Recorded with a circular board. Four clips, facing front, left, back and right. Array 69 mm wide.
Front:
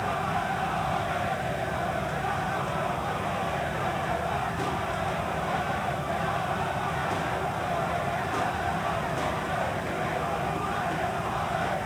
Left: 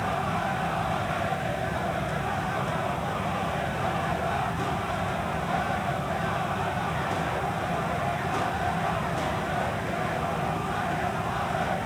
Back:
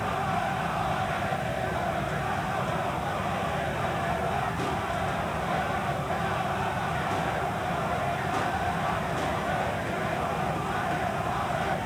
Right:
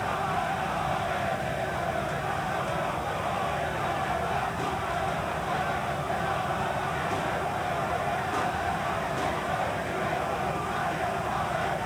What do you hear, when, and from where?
Only background noise.